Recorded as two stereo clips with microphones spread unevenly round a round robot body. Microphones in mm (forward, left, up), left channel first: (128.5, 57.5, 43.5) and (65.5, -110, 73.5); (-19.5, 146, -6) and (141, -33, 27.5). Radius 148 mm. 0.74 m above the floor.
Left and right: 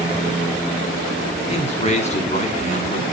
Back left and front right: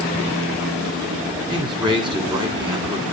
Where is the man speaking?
25° left, 2 m.